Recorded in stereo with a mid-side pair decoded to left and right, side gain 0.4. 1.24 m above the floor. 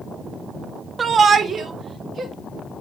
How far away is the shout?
About 0.7 m.